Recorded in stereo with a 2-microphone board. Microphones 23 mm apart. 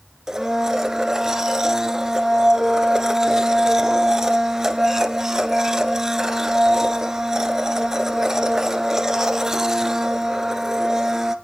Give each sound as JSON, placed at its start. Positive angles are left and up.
{"t": 0.3, "sound": "a blender", "side_deg": -20, "distance_m": 1.3}